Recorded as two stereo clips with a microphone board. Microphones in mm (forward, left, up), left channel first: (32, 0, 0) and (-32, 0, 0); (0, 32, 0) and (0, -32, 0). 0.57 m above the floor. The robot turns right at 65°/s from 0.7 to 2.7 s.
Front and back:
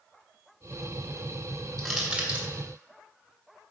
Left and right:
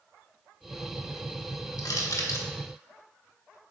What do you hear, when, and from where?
1.8 s crushing: 85° left, 1.5 m; by 2.5 s 130° left, 1.5 m